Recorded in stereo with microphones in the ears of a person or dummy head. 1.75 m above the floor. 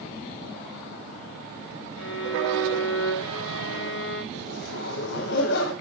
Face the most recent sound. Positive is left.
turn(degrees=70)  # may be behind; listen again after turning